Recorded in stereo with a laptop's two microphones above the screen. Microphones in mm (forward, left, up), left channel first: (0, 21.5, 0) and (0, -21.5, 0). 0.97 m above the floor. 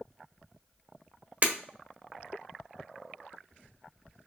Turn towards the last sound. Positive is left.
turn(degrees=-40)  # may be behind; listen again after turning